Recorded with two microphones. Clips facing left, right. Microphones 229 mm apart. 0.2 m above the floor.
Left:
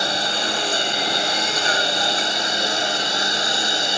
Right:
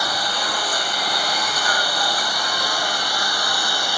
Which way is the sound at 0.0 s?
25° left (ahead or behind).